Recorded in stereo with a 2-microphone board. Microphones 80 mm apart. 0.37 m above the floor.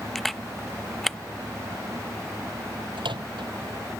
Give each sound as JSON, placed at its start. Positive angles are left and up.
{"t": 0.1, "sound": "a camera shutter", "side_deg": 5}
{"t": 3.0, "sound": "a microwave", "side_deg": -85}